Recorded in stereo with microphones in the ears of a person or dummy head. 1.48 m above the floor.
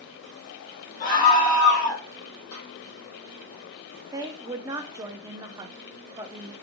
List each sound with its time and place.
1.0 s a scream: 40° left (ahead or behind), 2 m; by 2.0 s 50° left (ahead or behind), 1.7 m
2.5 s a snare drum: 70° left (ahead or behind), 2.5 m
4.1 s a woman speaking: 10° right (ahead or behind), 0.6 m